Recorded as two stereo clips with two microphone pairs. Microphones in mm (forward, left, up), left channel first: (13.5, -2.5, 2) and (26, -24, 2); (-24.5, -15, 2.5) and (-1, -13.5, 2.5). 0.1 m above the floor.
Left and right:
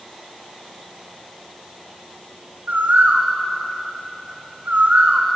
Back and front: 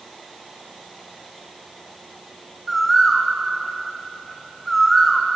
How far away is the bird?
About 3 m.